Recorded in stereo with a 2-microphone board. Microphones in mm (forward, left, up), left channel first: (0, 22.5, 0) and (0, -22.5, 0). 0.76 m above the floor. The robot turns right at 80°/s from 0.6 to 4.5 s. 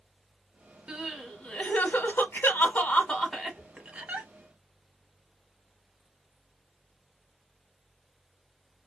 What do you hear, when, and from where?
0.9 s crying: 25° right (ahead or behind), 0.9 m; by 4.3 s 50° right (ahead or behind), 0.9 m